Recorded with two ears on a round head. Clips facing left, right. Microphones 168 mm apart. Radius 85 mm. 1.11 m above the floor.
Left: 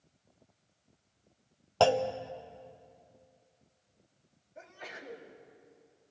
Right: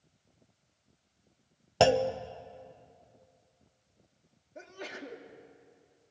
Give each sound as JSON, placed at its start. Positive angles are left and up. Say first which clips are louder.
{"t": 1.8, "sound": "a clunk", "louder": "right 2 dB", "side_deg": -20, "distance_m": 0.8}
{"t": 4.5, "sound": "a sneeze", "louder": "right 5 dB", "side_deg": -45, "distance_m": 2.5}